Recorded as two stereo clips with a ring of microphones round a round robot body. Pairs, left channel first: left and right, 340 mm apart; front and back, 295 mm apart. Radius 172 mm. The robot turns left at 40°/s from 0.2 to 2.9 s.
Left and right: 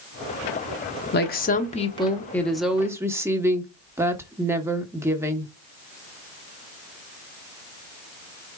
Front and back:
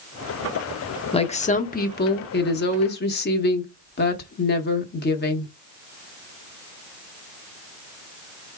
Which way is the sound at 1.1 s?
60° left.